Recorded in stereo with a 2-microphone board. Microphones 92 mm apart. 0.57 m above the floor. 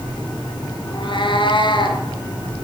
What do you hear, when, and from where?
0.9 s a cat meowing: 65° left (ahead or behind), 4.5 m; by 2.0 s 60° left (ahead or behind), 5.5 m